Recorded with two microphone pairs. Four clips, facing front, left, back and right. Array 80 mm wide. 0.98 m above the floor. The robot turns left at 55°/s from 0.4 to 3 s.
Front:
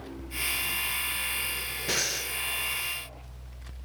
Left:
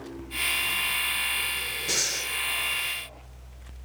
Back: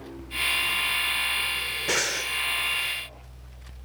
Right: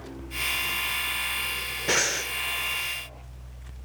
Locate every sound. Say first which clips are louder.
1.9 s breathing: right 10 dB, back 5 dB; 115° right, 0.6 m; by 2.3 s 140° right, 0.6 m